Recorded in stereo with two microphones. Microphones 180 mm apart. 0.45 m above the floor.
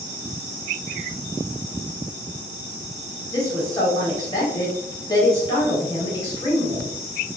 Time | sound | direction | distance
3.3 | a woman speaking | 20° left (ahead or behind) | 1.3 m